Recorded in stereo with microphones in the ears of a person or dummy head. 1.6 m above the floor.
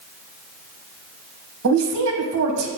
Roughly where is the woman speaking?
Right.